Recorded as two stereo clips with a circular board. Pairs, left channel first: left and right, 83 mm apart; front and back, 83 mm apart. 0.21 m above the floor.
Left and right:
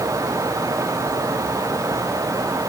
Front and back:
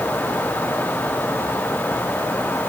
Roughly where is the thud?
No thud in this recording.